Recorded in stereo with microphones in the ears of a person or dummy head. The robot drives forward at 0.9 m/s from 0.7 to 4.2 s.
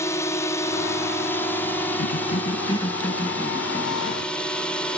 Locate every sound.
0.0 s a drone: 15° left (ahead or behind); by 5.0 s 10° left (ahead or behind)
2.0 s a cough: 50° left (ahead or behind); by 4.3 s 10° left (ahead or behind)